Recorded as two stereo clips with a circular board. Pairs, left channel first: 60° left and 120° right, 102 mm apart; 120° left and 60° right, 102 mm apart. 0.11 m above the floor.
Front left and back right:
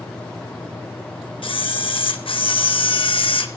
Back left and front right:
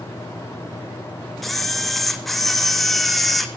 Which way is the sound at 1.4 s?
30° left.